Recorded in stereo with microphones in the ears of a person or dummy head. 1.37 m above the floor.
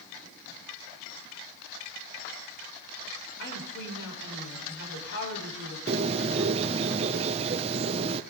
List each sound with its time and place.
3.4 s a woman speaking: 65° left (ahead or behind), 5 m
5.9 s a bird: 35° right (ahead or behind), 0.6 m